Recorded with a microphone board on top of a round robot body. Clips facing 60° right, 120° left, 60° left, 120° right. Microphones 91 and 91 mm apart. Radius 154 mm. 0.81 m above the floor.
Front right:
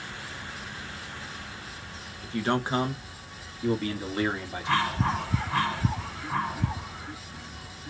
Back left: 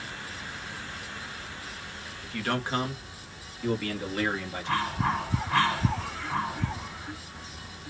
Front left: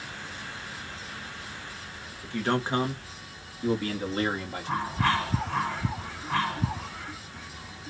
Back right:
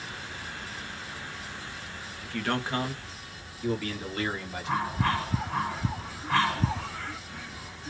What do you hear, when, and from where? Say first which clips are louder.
2.2 s a man speaking: front right 4 dB, front left 3 dB; 5° right, 1.2 m; by 5.0 s 10° left, 2.5 m